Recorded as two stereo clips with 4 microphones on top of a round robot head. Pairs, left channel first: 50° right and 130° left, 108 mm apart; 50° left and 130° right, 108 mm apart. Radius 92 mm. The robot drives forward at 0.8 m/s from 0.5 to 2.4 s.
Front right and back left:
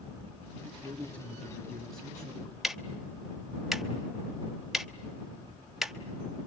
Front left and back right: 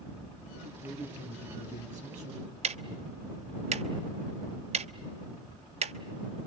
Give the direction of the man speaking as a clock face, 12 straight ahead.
4 o'clock.